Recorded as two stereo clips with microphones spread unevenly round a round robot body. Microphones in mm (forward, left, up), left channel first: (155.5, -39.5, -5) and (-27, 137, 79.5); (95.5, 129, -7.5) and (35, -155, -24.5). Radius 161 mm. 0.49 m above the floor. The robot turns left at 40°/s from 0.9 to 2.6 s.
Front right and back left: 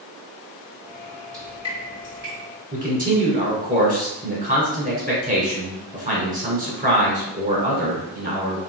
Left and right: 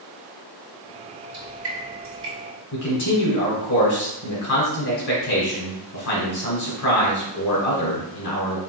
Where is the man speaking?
70° left, 1.8 m.